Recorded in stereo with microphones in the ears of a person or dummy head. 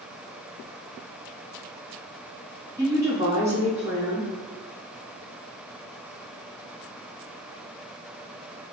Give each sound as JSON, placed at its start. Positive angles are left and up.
{"t": 2.8, "sound": "a woman speaking", "side_deg": -20, "distance_m": 1.6}